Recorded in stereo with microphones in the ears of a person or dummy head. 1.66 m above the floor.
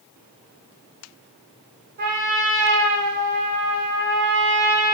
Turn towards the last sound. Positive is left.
turn(degrees=-50)  # may be behind; listen again after turning